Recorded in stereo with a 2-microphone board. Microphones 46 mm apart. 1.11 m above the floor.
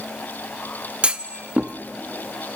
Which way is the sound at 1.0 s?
30° right (ahead or behind).